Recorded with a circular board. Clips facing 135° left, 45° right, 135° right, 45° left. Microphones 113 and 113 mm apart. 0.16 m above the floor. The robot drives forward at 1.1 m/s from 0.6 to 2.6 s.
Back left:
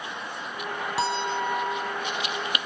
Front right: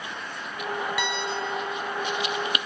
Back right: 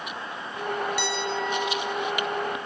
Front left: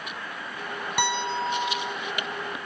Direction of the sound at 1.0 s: 80° left.